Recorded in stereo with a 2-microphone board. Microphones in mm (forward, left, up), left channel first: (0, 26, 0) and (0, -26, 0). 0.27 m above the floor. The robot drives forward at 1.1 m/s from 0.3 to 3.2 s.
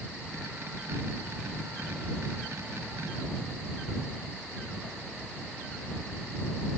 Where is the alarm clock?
I don't hear an alarm clock.